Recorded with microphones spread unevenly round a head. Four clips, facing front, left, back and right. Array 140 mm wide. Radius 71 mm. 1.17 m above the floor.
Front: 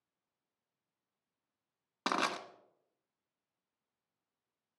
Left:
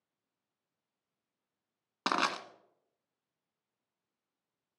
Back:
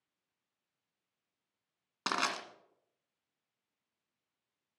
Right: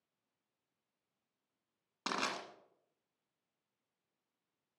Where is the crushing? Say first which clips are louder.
Left 7 dB, front 1 dB; 80° left, 1.6 m.